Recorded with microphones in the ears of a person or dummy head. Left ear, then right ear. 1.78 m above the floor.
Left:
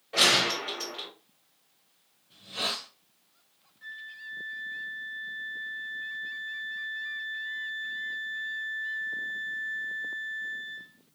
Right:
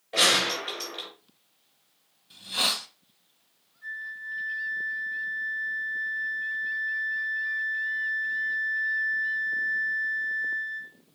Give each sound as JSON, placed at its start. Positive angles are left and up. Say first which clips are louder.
{"t": 0.1, "sound": "a gunshot", "louder": "even", "side_deg": 0, "distance_m": 3.0}
{"t": 2.3, "sound": "a hiss", "louder": "right 5 dB", "side_deg": -45, "distance_m": 1.6}
{"t": 3.8, "sound": "a flute", "louder": "right 6 dB", "side_deg": 45, "distance_m": 1.8}